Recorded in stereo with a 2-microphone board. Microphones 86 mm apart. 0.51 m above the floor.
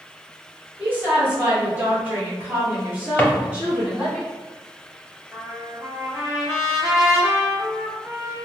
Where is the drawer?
20° left (ahead or behind), 0.5 m.